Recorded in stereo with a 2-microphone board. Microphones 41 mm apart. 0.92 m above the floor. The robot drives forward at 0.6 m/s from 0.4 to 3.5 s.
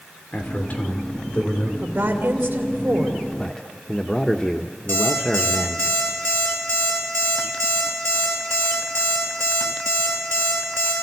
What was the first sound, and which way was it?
A man speaking, 45° left (ahead or behind).